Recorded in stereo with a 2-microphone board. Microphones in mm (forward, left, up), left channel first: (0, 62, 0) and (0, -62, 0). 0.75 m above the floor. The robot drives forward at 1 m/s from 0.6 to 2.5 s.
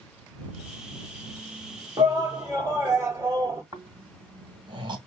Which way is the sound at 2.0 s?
30° right (ahead or behind).